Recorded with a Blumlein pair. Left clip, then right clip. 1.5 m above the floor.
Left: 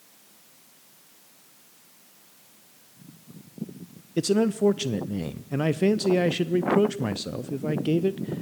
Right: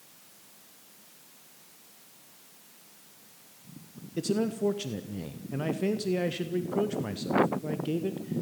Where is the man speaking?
70° left, 0.7 m.